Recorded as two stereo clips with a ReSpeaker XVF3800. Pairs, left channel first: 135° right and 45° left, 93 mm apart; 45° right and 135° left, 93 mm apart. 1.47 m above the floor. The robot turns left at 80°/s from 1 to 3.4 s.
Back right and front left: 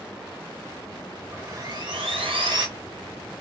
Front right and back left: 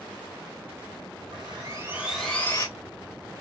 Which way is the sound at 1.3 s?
115° left.